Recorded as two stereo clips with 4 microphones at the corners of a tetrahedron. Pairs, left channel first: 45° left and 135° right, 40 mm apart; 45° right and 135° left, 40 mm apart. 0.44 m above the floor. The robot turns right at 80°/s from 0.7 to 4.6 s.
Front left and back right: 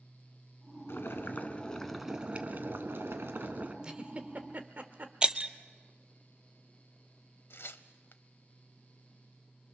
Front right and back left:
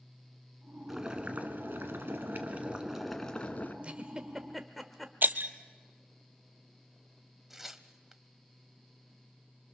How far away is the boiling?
About 1.7 m.